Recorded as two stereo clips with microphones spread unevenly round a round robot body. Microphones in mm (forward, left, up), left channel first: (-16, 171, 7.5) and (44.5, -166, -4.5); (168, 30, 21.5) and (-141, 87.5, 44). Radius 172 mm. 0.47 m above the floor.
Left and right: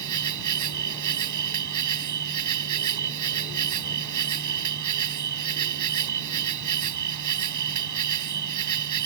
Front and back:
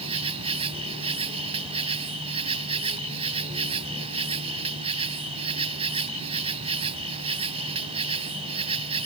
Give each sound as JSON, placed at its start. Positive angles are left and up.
{"t": 0.0, "sound": "an insect", "azimuth_deg": -115}